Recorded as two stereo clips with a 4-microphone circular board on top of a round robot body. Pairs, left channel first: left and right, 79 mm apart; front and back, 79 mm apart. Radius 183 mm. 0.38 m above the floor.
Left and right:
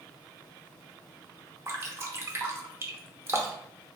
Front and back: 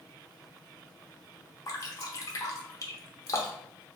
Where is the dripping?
35° right, 0.9 m.